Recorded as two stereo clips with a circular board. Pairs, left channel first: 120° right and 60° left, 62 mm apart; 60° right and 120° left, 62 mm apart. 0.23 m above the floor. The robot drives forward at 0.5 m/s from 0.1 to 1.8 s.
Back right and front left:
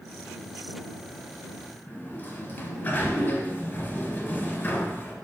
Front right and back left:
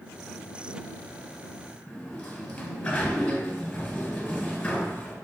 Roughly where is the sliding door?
Behind right.